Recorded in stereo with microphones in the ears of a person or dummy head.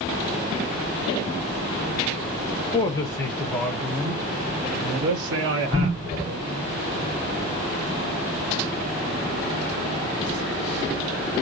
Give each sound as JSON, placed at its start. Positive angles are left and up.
{"t": 2.7, "sound": "a woman speaking", "side_deg": 20, "distance_m": 1.0}